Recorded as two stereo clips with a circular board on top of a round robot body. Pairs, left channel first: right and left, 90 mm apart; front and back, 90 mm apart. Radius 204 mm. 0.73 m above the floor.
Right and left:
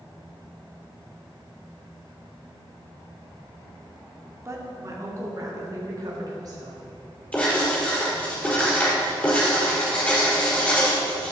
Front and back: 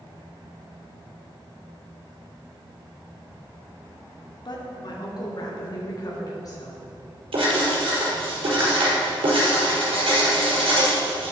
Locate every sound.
4.5 s a woman speaking: 35° left, 2.5 m; by 6.8 s 50° left, 4 m
7.3 s writing: 160° right, 4.5 m